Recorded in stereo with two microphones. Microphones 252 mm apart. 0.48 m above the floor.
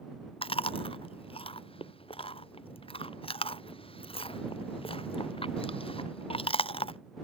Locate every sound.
0.4 s chewing: 20° left (ahead or behind)